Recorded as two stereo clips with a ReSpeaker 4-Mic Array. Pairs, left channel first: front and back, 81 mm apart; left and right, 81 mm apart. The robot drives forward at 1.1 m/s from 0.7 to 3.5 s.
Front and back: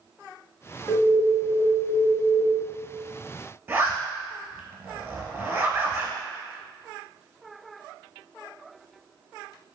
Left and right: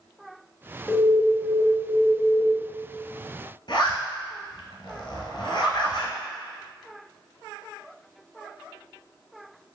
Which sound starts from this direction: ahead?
An alarm, at 0.9 s.